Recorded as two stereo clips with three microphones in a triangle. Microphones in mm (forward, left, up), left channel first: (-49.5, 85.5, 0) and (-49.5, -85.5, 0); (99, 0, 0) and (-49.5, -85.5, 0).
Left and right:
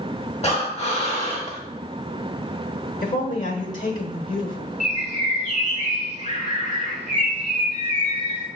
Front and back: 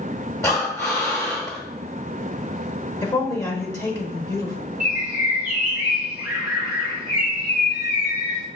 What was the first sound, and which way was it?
Breathing, 95° left.